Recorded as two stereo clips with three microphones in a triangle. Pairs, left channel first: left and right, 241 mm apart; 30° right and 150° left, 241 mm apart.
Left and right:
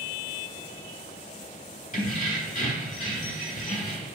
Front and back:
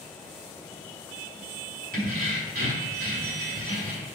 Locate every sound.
1.9 s keys jangling: 125° left, 1.1 m